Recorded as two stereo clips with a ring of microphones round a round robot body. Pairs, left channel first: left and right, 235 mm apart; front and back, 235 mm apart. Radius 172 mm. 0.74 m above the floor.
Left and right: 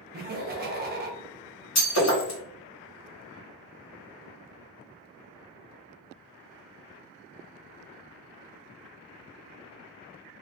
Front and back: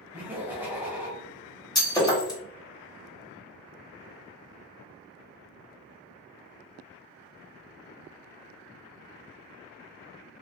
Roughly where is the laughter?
Right.